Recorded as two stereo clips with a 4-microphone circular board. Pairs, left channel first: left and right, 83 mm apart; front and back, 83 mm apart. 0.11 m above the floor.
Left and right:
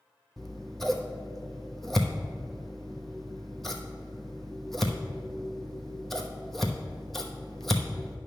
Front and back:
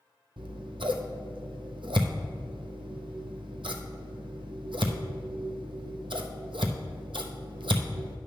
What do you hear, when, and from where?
0.4 s scissors: 175° left, 0.8 m